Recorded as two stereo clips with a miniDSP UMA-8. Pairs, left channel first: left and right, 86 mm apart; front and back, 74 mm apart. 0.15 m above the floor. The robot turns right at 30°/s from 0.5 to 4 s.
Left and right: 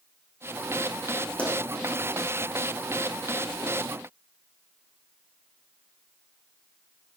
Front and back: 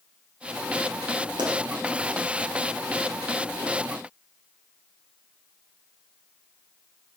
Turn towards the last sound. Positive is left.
turn(degrees=-115)